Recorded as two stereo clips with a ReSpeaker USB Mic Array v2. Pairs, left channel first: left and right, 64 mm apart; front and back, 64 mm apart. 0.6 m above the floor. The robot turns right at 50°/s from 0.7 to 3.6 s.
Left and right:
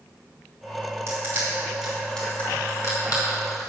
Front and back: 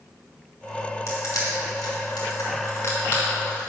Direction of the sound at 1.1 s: 40° right.